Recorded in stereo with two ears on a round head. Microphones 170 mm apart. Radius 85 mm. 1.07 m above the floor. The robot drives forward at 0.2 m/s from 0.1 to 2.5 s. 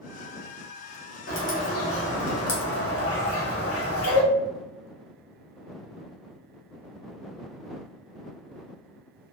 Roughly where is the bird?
Left.